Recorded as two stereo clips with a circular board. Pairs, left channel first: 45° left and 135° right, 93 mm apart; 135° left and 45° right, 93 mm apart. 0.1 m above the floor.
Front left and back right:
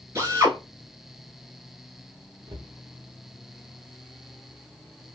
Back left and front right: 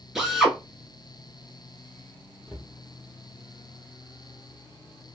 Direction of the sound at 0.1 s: 130° right.